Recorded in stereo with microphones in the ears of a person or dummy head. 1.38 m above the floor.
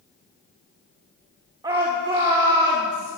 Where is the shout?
30° right (ahead or behind), 1.1 m.